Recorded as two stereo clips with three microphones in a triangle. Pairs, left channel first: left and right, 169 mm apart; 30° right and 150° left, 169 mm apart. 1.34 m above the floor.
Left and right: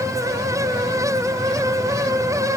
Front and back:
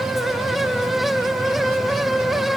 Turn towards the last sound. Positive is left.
No sound to turn to.